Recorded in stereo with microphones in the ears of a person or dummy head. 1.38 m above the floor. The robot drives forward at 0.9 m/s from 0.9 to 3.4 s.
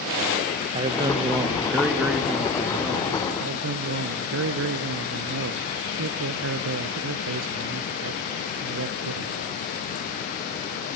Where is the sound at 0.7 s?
30° right (ahead or behind), 1.0 m; by 3.2 s 10° right (ahead or behind), 3 m.